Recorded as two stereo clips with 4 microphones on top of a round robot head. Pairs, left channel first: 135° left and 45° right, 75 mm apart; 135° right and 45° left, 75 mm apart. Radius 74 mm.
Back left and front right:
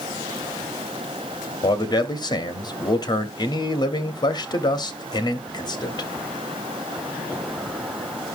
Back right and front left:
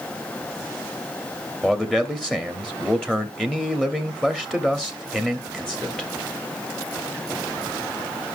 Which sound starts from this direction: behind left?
A man speaking, at 1.6 s.